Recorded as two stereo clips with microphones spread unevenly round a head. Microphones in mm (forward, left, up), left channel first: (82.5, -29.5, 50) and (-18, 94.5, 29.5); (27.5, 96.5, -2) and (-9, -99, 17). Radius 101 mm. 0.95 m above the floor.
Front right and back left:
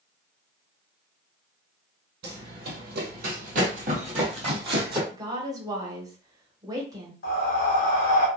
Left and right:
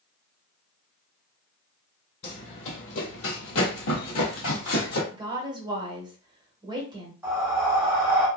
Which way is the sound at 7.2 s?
20° right.